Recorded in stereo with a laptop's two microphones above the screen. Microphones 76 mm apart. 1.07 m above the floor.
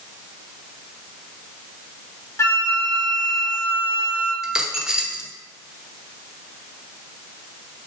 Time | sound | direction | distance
2.4 | a flute | 40° left (ahead or behind) | 1.6 m
4.4 | a dropped coin | 10° right (ahead or behind) | 0.7 m